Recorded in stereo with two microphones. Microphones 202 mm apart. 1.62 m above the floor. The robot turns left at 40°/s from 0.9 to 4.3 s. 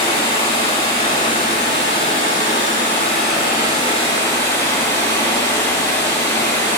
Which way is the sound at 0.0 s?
155° left.